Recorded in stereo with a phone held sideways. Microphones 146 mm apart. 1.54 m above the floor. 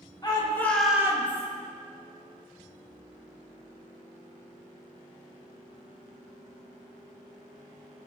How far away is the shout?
About 1.8 m.